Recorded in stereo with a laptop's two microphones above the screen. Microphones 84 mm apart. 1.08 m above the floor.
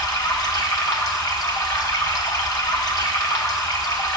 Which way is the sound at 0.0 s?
50° left (ahead or behind).